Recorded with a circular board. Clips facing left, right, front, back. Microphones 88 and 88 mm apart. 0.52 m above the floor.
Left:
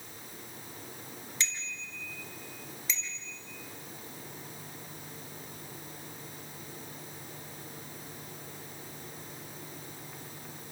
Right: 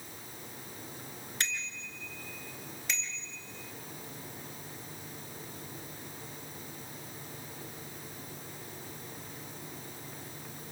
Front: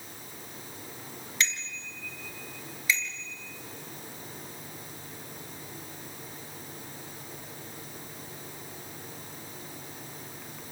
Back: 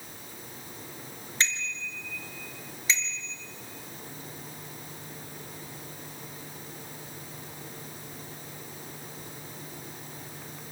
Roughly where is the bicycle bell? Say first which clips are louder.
Right 2 dB, back 1 dB; behind right.